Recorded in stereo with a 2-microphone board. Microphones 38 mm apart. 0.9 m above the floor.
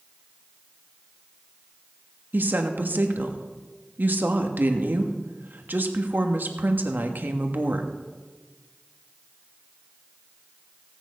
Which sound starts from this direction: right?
A woman speaking, at 2.3 s.